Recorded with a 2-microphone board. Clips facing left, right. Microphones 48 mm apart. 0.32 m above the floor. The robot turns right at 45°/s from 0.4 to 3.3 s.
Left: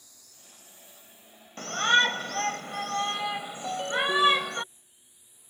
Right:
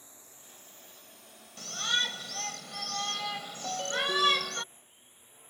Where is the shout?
70° left; by 4.6 s 150° left.